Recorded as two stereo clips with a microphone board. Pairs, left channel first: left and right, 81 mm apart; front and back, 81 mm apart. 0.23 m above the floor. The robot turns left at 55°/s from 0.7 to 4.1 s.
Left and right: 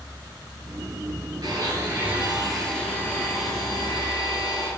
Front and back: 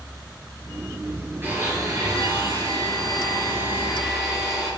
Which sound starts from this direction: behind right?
A blender, at 1.4 s.